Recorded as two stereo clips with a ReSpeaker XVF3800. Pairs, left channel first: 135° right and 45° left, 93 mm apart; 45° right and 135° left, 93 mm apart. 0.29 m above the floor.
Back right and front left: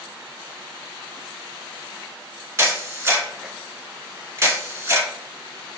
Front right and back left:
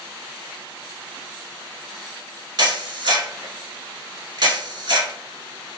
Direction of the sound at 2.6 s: 105° left.